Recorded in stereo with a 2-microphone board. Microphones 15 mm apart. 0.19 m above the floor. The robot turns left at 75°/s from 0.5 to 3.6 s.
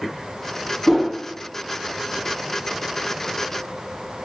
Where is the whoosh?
5° left (ahead or behind), 2.0 m; by 1.1 s 5° right (ahead or behind), 2.0 m.